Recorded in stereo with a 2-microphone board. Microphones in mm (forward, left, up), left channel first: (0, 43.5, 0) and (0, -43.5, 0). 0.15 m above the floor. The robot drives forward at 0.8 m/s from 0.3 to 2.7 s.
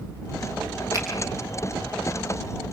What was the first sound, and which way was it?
A finger snap, 35° right (ahead or behind).